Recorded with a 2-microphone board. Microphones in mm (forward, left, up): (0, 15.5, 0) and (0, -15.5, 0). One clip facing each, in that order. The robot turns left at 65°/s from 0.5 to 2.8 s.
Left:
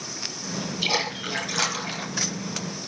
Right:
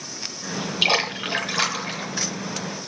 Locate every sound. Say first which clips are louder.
0.8 s a splash: right 5 dB; 115° right, 3 m; by 2.1 s 160° left, 3 m